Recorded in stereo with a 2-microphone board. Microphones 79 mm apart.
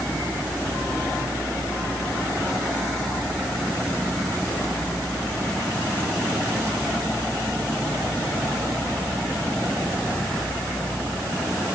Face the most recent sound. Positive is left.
No sound to turn to.